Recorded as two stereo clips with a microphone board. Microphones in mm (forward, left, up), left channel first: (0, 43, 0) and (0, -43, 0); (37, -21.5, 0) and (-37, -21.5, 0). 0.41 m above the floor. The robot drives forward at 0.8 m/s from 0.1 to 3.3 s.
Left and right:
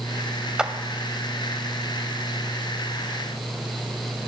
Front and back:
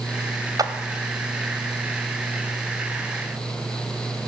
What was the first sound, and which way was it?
A clap, 170° right.